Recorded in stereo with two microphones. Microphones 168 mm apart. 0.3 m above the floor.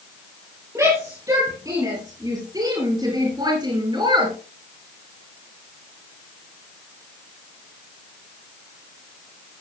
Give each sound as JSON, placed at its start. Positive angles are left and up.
{"t": 0.8, "sound": "a shout", "side_deg": -15, "distance_m": 6.5}